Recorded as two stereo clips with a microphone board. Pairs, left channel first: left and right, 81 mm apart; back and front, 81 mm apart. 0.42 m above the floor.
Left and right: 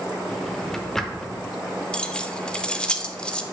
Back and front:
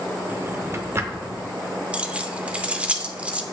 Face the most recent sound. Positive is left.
turn(degrees=40)